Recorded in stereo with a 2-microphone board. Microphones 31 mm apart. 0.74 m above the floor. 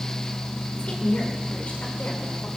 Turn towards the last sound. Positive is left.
turn(degrees=60)  # may be behind; listen again after turning